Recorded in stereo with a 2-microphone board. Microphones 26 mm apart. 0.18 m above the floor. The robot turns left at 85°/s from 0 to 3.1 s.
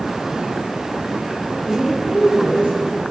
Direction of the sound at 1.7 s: 30° left.